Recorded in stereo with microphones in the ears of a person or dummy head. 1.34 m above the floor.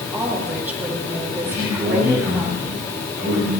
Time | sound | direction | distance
0.1 | a woman speaking | 5° right (ahead or behind) | 4 m
1.4 | a man speaking | 20° right (ahead or behind) | 6.5 m